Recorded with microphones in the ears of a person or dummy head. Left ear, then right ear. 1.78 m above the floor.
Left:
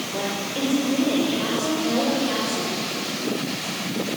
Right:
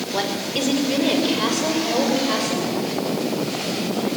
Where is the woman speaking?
65° right (ahead or behind), 5.5 m; by 2.7 s 35° right (ahead or behind), 7.5 m.